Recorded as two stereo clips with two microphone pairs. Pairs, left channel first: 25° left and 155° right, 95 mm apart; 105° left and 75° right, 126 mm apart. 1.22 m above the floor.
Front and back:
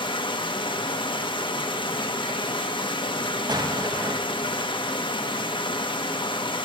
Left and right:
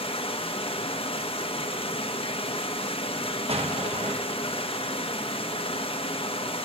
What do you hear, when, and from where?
0.0 s running water: 55° left, 0.9 m
3.5 s an explosion: 110° right, 1.0 m